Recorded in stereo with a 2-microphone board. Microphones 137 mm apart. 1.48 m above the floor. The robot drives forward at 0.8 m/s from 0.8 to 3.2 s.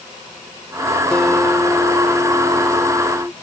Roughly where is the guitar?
Centre.